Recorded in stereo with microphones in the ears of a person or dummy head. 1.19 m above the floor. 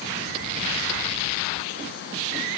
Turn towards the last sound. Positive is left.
No sound to turn to.